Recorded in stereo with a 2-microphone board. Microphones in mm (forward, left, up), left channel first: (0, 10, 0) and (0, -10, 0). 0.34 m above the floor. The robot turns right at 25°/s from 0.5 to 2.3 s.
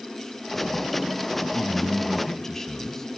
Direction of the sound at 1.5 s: 35° left (ahead or behind).